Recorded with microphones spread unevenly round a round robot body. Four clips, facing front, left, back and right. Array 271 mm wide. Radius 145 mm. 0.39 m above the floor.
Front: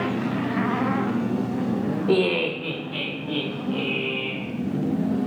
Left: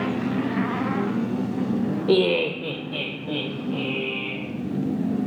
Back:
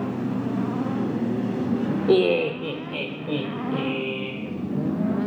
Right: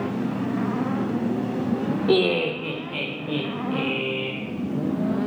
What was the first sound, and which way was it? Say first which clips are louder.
Laughter: left 1 dB, back 3 dB; 120° left.